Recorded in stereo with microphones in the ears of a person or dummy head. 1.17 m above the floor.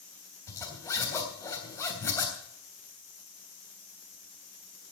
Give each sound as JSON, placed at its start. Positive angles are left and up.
{"t": 0.5, "sound": "a zipper", "side_deg": 10, "distance_m": 3.5}